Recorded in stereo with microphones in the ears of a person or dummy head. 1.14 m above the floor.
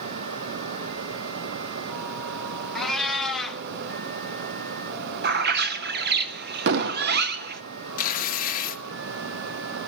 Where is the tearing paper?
40° left (ahead or behind), 0.8 m.